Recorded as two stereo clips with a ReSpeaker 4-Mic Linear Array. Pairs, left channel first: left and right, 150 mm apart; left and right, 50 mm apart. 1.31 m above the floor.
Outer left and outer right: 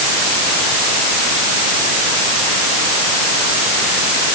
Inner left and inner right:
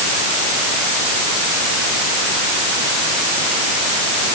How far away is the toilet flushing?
I don't hear a toilet flushing.